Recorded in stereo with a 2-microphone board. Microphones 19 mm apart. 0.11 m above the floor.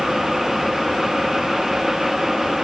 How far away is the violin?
No violin in this recording.